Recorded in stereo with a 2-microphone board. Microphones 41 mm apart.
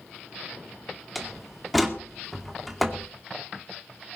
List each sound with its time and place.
1.1 s a door slam: centre (ahead or behind), 2 m